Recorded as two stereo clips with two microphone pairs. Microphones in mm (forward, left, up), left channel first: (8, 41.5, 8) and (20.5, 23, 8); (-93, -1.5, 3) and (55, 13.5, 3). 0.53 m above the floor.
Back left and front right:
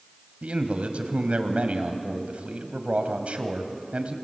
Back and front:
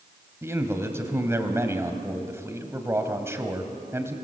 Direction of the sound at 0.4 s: 65° right.